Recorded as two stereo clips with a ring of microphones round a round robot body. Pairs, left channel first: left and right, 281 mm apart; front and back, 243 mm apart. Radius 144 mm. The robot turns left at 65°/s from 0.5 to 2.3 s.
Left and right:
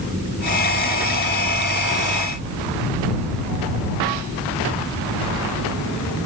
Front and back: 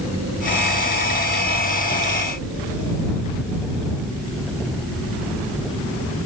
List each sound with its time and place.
Only background noise.